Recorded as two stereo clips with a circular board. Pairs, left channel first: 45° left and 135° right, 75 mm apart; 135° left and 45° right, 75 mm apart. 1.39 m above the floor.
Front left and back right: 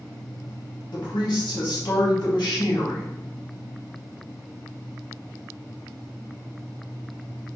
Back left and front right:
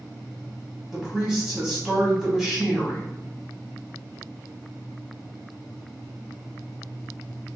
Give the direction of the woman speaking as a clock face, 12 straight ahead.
10 o'clock.